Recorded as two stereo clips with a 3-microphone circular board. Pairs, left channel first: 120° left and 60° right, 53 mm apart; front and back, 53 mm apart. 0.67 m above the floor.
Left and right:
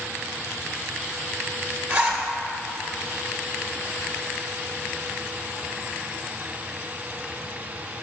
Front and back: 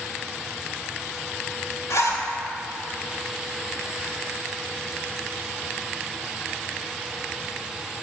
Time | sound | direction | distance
1.9 | a zipper | 5° left | 1.7 m